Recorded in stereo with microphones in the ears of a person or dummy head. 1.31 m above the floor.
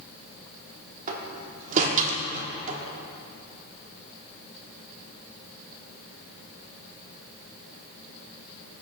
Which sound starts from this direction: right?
A door slam, at 1.1 s.